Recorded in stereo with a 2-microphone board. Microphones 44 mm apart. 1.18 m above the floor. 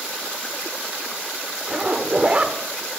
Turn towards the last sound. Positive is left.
turn(degrees=-25)  # may be behind; listen again after turning